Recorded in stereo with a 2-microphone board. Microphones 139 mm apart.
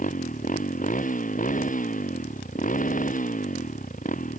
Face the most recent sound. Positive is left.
turn(degrees=70)  # may be behind; listen again after turning